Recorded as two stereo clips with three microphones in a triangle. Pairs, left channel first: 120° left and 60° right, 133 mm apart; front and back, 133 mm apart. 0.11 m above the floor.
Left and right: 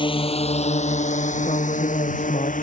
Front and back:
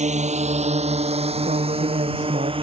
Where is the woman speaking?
160° left.